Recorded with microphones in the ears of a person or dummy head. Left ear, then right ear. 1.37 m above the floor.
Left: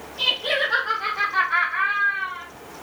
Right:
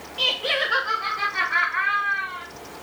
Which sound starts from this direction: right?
Laughter, at 0.2 s.